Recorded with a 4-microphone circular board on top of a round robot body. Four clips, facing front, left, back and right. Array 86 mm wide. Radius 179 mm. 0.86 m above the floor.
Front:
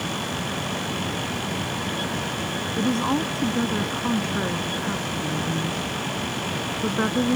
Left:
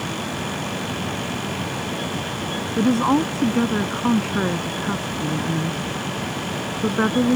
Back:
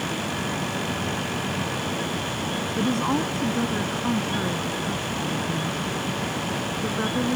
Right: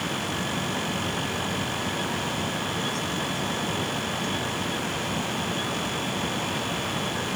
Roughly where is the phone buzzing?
No phone buzzing in this recording.